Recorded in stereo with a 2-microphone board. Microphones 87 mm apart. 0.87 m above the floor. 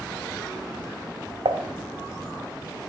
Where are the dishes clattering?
65° right (ahead or behind), 0.6 m.